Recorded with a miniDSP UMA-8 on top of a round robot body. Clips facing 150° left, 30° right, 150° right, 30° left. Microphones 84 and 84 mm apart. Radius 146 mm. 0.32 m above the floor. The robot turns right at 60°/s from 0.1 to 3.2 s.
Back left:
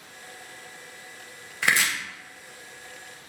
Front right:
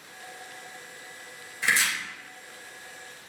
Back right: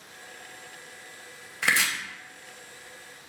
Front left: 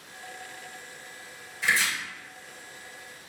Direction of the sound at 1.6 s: Straight behind.